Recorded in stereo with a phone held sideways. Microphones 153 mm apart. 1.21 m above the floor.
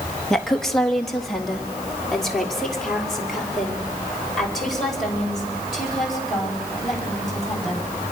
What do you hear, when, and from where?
0.3 s a woman speaking: 5° left (ahead or behind), 1.4 m; by 7.8 s centre (ahead or behind), 8.5 m